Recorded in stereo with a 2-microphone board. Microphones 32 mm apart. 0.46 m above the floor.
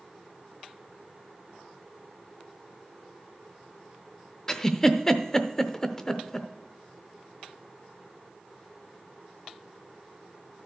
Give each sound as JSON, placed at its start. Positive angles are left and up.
{"t": 4.5, "sound": "a giggle", "side_deg": 15, "distance_m": 0.6}